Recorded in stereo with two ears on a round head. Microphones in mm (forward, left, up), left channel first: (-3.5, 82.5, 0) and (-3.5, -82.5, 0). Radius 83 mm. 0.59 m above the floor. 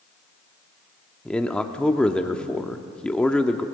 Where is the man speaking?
5° left (ahead or behind), 0.9 m.